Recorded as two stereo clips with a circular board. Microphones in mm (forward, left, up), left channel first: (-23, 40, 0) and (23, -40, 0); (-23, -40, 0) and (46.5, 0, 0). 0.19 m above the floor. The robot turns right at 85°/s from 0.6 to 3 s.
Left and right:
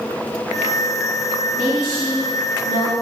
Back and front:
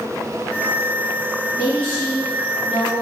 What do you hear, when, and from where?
1.5 s a woman speaking: 135° right, 1.5 m; by 2.9 s 15° right, 1.5 m